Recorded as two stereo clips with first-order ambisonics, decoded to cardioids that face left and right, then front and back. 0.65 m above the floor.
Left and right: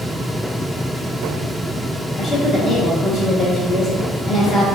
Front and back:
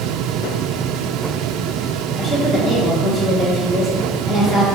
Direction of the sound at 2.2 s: 75° left.